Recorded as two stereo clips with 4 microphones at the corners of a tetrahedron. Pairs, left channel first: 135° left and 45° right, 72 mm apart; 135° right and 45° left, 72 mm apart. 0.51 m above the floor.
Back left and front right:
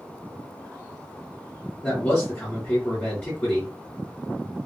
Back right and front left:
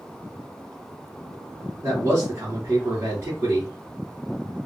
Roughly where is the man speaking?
Left.